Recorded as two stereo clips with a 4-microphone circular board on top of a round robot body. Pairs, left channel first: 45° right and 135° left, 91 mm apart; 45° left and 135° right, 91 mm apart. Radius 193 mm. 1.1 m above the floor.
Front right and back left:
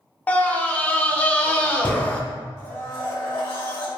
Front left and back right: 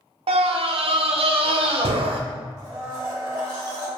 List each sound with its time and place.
0.3 s a scream: 120° right, 0.5 m
2.6 s a blender: 75° right, 1.3 m